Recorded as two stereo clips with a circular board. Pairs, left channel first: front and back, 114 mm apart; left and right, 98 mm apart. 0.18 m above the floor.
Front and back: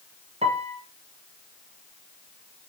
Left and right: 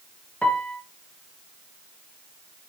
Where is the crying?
No crying in this recording.